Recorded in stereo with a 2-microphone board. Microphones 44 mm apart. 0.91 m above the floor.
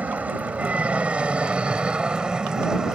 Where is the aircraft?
35° right (ahead or behind); by 3.0 s 15° right (ahead or behind).